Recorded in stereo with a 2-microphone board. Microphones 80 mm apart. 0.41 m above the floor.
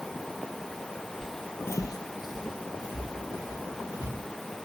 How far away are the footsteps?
About 0.8 m.